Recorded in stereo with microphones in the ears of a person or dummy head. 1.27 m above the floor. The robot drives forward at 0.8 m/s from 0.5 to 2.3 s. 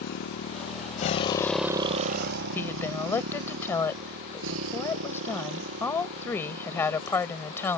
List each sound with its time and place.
0.0 s a motorcycle: 65° left (ahead or behind); by 7.8 s 80° right
2.5 s a woman speaking: 15° left (ahead or behind)